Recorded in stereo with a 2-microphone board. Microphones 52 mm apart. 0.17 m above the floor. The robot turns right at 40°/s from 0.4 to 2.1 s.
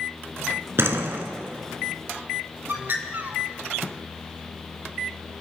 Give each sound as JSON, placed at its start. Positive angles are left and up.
{"t": 0.8, "sound": "a door slam", "side_deg": -55, "distance_m": 1.6}
{"t": 2.7, "sound": "a bird", "side_deg": -40, "distance_m": 1.5}